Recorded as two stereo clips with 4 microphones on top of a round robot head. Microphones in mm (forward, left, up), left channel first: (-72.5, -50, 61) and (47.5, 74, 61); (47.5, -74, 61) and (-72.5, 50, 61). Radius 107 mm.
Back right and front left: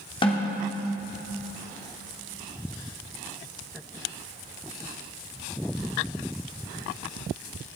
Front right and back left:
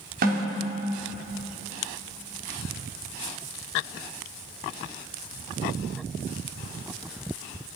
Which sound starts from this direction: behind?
A snare drum, at 0.2 s.